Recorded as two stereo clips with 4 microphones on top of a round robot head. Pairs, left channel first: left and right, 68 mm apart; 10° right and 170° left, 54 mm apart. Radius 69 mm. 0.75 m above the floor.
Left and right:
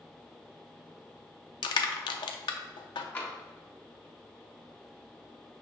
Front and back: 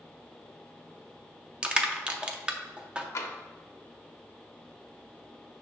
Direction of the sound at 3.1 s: 25° left.